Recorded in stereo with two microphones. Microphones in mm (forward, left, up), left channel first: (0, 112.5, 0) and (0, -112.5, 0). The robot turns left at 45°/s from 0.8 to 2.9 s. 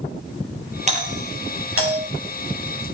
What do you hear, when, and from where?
0.9 s a doorbell: 30° right (ahead or behind), 5.5 m; by 2.0 s 75° right (ahead or behind), 5.5 m